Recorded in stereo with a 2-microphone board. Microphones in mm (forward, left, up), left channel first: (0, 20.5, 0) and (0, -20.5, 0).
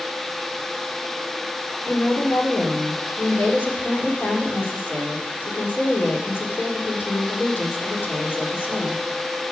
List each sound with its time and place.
1.9 s a woman speaking: 65° left (ahead or behind), 3.5 m